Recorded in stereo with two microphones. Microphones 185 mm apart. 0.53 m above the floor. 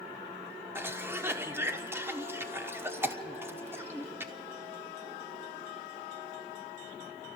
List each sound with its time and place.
0.8 s a cough: 15° right (ahead or behind), 1.1 m